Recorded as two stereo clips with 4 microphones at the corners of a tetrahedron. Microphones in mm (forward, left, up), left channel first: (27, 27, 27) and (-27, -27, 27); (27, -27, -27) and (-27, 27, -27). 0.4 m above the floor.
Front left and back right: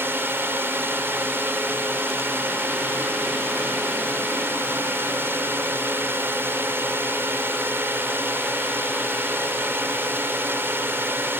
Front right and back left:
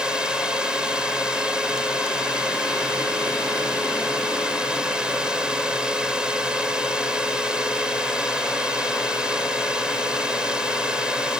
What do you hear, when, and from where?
0.0 s a drone: 155° right